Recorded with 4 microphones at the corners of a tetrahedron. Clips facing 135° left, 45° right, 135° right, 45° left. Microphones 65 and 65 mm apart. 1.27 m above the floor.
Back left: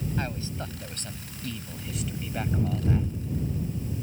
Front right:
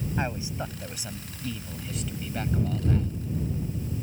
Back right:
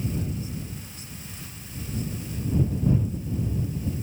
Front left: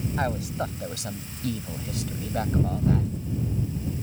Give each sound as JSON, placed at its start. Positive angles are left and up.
{"t": 0.2, "sound": "a man speaking", "azimuth_deg": 25}